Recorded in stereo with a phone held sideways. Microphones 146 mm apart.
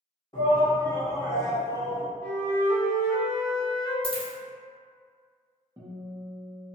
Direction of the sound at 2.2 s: 10° left (ahead or behind).